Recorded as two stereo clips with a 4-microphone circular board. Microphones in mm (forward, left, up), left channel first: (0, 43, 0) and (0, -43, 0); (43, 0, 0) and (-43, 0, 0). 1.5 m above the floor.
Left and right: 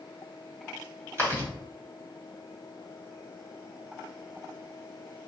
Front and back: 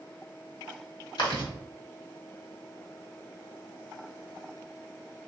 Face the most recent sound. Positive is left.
turn(degrees=-35)